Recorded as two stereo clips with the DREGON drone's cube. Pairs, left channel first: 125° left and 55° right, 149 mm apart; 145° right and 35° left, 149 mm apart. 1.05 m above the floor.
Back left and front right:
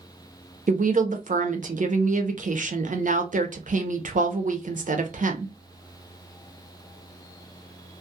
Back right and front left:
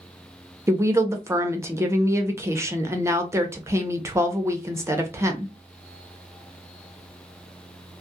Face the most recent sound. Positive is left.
turn(degrees=-35)